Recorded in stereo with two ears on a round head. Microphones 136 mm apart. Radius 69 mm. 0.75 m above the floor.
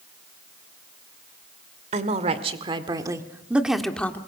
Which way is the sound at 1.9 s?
50° right (ahead or behind).